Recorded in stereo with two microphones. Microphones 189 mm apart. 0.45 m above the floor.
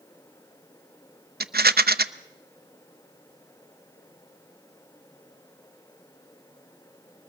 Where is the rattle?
55° right (ahead or behind), 0.7 m.